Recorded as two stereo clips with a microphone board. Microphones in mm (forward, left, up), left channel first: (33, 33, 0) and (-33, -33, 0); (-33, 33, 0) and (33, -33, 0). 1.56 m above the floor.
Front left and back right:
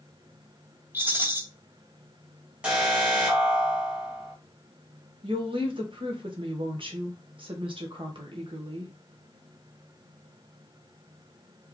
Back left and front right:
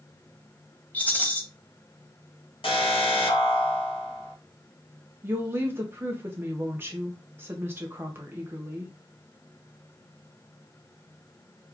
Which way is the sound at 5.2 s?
110° right.